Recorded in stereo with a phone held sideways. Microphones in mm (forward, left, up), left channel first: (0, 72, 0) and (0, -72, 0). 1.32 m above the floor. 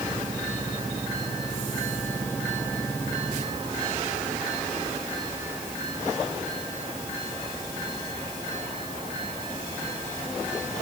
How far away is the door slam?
No door slam in this recording.